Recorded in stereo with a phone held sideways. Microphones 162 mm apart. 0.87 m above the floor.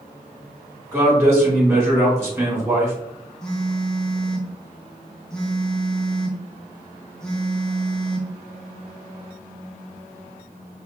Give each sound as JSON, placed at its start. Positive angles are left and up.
{"t": 0.9, "sound": "a man speaking", "side_deg": -20, "distance_m": 1.7}
{"t": 3.4, "sound": "a phone buzzing", "side_deg": 5, "distance_m": 0.6}